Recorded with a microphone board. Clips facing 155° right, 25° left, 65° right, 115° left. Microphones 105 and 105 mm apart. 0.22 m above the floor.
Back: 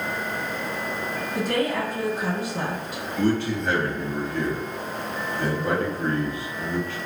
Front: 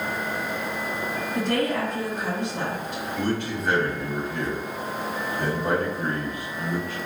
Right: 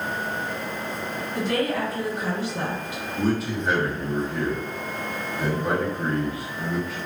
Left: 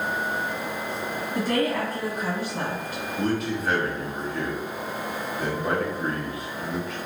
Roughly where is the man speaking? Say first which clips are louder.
Back 5 dB, right 2 dB; ahead.